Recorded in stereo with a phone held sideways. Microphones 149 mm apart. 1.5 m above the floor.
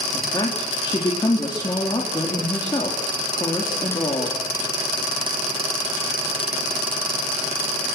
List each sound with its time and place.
0.1 s a woman speaking: 30° left (ahead or behind), 4 m